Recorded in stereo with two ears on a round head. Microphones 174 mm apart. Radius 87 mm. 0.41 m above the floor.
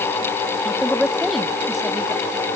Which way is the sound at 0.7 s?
Centre (ahead or behind).